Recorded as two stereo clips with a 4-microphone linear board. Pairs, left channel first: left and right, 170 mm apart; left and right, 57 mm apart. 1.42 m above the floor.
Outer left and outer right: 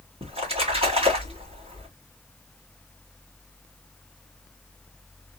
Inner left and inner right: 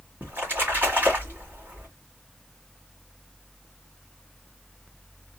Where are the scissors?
No scissors in this recording.